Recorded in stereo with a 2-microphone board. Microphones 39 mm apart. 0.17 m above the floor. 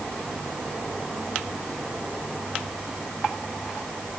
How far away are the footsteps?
No footsteps in this recording.